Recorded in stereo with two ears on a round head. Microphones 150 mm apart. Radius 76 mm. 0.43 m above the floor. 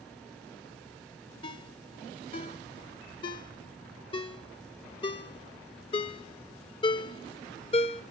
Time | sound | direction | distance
1.4 | a ringtone | 30° left (ahead or behind) | 0.6 m